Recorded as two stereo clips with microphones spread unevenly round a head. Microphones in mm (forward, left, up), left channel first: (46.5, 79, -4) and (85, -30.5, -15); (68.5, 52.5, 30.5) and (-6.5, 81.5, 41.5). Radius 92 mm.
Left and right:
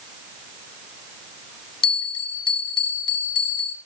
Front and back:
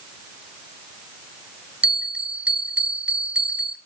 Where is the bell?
95° left, 1.7 m.